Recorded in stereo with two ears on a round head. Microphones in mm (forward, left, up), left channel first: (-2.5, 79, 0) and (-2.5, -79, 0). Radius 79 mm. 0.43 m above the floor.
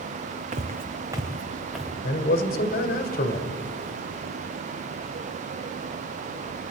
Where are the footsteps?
45° right (ahead or behind), 1.3 m; by 1.9 s centre (ahead or behind), 2 m.